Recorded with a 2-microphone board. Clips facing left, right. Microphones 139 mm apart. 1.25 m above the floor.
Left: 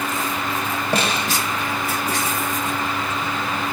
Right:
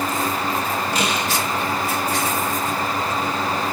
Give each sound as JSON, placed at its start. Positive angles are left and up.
{"t": 0.9, "sound": "a snare drum", "side_deg": 60, "distance_m": 5.5}